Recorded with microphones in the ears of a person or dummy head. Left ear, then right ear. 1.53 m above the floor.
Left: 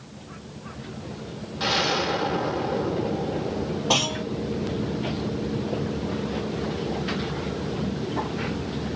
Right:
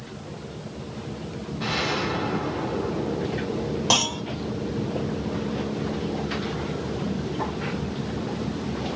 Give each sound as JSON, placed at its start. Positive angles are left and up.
{"t": 1.6, "sound": "an explosion", "side_deg": 50, "distance_m": 1.0}
{"t": 3.9, "sound": "a clunk", "side_deg": -75, "distance_m": 1.5}